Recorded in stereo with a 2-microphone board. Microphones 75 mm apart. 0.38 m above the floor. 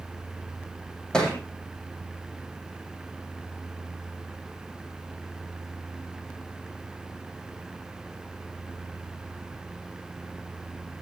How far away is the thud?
About 4.5 m.